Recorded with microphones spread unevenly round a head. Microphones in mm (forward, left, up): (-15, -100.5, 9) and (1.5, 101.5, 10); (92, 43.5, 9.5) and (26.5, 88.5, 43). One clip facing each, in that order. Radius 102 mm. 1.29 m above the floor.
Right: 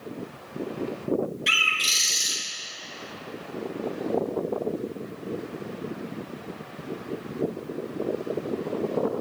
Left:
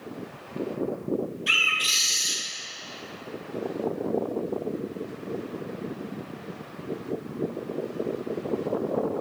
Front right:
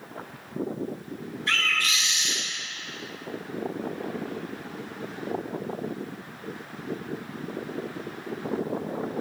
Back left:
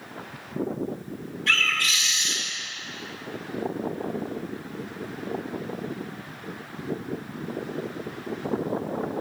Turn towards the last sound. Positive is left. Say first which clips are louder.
# even, back left 1 dB
turn(degrees=-150)